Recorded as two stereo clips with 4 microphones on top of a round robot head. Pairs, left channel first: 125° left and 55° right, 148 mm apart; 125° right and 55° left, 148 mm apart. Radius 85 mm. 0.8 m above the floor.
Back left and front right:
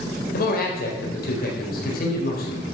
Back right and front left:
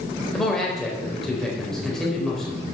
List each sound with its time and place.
0.3 s a man speaking: 150° left, 4 m